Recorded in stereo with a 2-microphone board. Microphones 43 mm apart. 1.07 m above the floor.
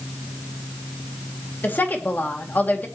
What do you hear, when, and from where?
1.6 s a woman speaking: 45° left (ahead or behind), 2 m